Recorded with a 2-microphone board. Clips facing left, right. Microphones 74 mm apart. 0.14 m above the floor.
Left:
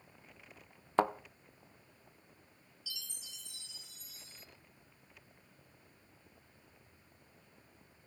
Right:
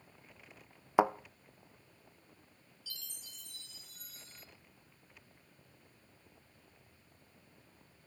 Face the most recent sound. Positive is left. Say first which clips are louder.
# left 2 dB
turn(degrees=-50)  # may be behind; listen again after turning